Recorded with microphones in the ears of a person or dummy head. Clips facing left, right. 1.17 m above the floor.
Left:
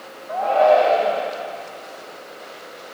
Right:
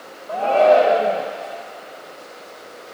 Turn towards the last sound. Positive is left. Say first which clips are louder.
# right 1 dB
turn(degrees=-40)  # may be behind; listen again after turning